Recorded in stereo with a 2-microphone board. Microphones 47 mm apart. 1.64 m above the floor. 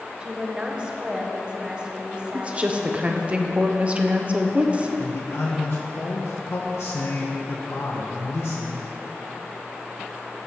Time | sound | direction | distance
0.2 | a woman speaking | 20° right (ahead or behind) | 1.2 m
2.3 | a woman speaking | 25° right (ahead or behind) | 0.9 m
5.0 | a man speaking | 70° left (ahead or behind) | 1.1 m